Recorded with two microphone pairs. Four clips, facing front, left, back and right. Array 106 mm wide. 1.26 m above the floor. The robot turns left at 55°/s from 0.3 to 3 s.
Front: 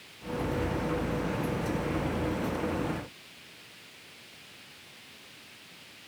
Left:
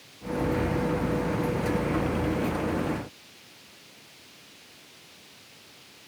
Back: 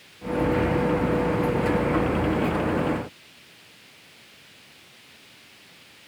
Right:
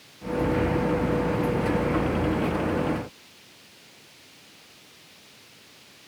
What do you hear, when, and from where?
Only background noise.